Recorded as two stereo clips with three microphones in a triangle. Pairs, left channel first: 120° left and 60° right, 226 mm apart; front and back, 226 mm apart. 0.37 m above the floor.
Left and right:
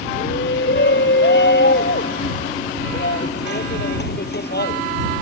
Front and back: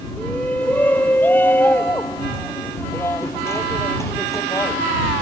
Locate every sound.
0.2 s a shout: 85° left; by 4.8 s 75° left